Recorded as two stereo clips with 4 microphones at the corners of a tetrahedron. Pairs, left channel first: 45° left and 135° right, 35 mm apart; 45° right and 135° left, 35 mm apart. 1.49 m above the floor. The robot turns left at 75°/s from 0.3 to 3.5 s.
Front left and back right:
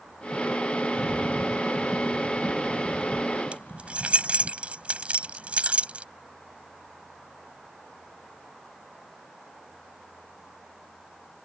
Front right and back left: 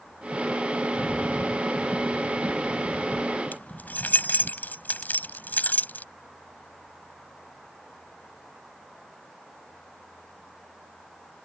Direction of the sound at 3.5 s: 80° right.